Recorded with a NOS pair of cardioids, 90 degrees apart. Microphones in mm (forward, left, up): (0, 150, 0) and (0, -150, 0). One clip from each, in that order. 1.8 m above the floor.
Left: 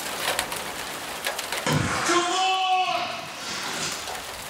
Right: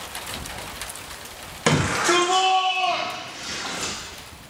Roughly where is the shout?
Ahead right.